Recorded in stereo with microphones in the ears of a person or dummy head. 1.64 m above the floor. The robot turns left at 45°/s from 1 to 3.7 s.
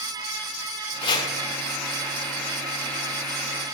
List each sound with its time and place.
1.0 s chopping: 30° left (ahead or behind), 2.5 m; by 1.3 s 20° left (ahead or behind), 2.5 m